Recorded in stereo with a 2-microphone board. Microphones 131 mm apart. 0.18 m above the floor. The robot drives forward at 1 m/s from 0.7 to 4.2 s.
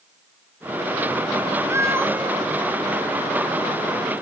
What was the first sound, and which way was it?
A cat meowing, 20° right (ahead or behind).